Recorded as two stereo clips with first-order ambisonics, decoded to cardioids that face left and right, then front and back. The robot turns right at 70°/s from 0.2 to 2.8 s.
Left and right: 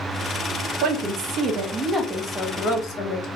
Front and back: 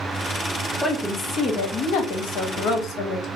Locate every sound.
0.8 s a woman speaking: 90° right, 0.7 m; by 3.3 s 50° left, 0.7 m